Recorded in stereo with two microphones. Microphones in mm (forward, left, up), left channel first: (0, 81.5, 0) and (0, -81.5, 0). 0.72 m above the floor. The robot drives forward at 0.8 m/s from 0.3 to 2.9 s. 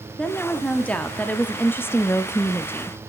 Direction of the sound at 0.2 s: 5° left (ahead or behind).